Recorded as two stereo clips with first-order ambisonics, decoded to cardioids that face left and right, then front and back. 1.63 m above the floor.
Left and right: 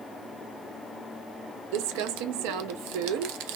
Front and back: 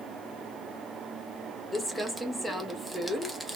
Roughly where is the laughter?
I don't hear laughter.